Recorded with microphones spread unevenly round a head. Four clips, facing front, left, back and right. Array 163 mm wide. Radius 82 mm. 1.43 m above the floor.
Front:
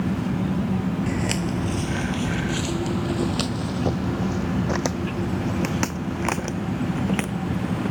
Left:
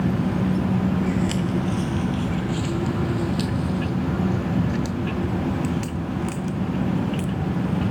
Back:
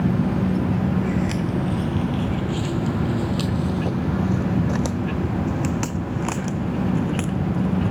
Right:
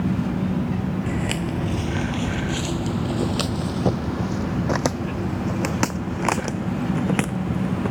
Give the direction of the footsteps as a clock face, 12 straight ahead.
1 o'clock.